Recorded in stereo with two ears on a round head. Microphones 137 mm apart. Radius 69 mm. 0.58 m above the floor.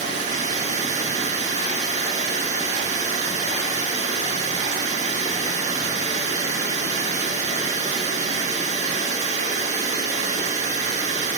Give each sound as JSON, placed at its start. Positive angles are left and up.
{"t": 0.0, "sound": "running water", "side_deg": -50, "distance_m": 5.0}